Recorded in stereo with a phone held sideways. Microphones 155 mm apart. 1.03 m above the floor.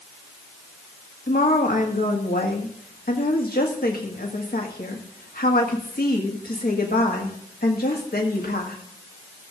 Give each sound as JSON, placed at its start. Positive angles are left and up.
{"t": 1.3, "sound": "a woman speaking", "side_deg": 75, "distance_m": 1.7}